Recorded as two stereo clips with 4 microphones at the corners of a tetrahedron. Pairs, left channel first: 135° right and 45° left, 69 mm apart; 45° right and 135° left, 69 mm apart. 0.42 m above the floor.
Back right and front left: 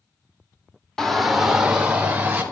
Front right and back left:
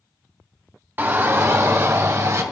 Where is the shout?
150° left, 0.9 m; by 2.4 s 110° left, 1.4 m.